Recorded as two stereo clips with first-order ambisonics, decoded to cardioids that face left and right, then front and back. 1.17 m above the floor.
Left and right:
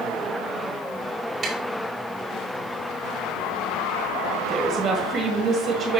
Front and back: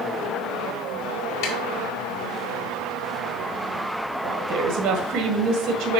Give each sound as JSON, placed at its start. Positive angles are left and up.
{"t": 1.4, "sound": "tapping", "azimuth_deg": -20, "distance_m": 2.0}
{"t": 4.2, "sound": "a woman speaking", "azimuth_deg": -160, "distance_m": 1.5}